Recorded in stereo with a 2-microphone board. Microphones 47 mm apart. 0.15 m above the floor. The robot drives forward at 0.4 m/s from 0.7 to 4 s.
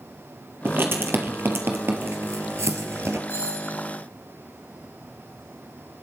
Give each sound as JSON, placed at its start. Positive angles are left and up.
{"t": 0.7, "sound": "writing", "side_deg": -50, "distance_m": 2.5}
{"t": 3.3, "sound": "a doorbell", "side_deg": 75, "distance_m": 6.0}